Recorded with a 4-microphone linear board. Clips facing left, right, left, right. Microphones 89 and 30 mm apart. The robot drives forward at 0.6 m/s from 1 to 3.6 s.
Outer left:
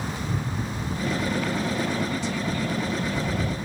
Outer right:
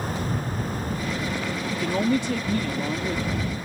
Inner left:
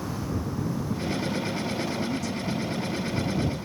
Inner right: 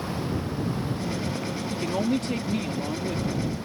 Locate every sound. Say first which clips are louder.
1.7 s a woman speaking: outer right 3 dB, inner right 3 dB; 65° right (ahead or behind); by 3.4 s 50° right (ahead or behind)